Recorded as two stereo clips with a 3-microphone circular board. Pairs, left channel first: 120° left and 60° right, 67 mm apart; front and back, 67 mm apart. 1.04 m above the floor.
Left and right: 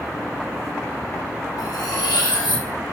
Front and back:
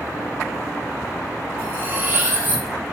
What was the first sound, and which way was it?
Cutlery clinking, 125° left.